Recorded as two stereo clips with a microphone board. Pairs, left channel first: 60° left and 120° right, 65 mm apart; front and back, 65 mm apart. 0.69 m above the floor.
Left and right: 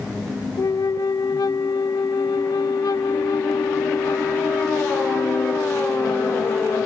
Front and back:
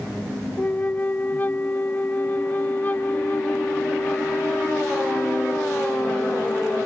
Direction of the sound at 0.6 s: 60° left.